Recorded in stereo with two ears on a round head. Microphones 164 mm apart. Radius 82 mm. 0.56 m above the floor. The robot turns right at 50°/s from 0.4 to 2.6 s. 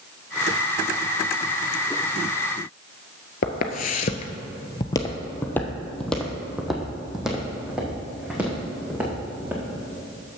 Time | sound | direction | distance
3.4 | footsteps | 50° left (ahead or behind) | 0.8 m